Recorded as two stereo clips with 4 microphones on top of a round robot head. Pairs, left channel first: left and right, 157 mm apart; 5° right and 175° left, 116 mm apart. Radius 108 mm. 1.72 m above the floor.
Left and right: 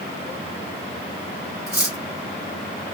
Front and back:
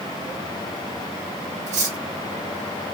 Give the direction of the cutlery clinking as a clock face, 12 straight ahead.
6 o'clock.